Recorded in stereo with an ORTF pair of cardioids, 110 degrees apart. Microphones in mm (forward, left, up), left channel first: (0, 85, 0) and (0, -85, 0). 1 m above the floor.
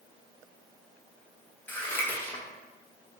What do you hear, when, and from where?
1.7 s scissors: 10° left, 0.6 m